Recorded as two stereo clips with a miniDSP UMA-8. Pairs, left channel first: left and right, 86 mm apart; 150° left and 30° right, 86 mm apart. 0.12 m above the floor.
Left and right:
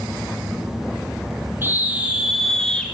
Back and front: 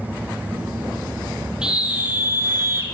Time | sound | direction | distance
1.6 | a scream | 100° right | 1.4 m